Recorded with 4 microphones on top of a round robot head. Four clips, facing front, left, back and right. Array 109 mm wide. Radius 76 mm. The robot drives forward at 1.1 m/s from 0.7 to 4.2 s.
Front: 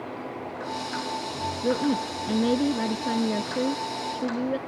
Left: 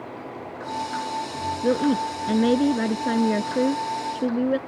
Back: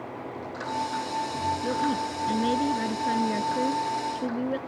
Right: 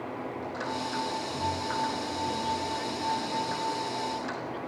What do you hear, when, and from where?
1.6 s a woman speaking: 70° left; by 4.6 s 85° left